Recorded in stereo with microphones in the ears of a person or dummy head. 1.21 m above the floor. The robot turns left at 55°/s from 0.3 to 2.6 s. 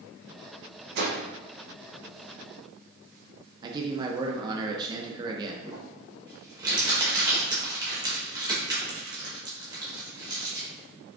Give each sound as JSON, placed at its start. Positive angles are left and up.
{"t": 0.9, "sound": "a whoosh", "side_deg": -65, "distance_m": 0.8}
{"t": 3.6, "sound": "a man speaking", "side_deg": -25, "distance_m": 0.5}
{"t": 5.6, "sound": "crumpling", "side_deg": -25, "distance_m": 1.2}